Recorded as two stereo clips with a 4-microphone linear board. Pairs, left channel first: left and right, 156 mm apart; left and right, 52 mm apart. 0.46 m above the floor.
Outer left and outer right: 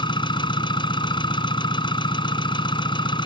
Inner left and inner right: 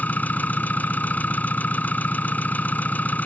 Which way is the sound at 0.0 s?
30° left (ahead or behind).